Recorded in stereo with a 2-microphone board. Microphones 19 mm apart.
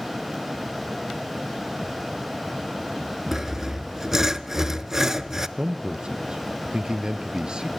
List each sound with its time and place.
3.3 s sawing: 20° right (ahead or behind), 0.6 m
5.6 s a man speaking: 45° right (ahead or behind), 1.6 m